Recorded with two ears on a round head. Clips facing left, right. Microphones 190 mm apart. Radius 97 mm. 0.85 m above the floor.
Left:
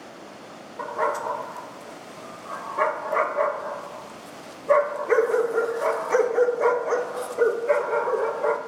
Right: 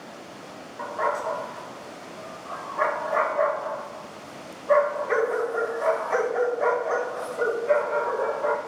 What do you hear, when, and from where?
0.8 s a dog barking: 45° left (ahead or behind), 0.7 m